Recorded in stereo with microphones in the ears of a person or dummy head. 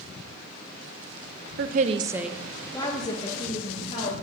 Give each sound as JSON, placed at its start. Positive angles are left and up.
{"t": 1.6, "sound": "a woman speaking", "side_deg": -55, "distance_m": 0.5}